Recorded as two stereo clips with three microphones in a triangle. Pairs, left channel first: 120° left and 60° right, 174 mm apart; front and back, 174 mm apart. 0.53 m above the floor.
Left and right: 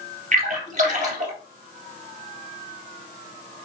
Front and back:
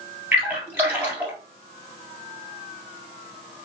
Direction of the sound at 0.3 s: 100° right.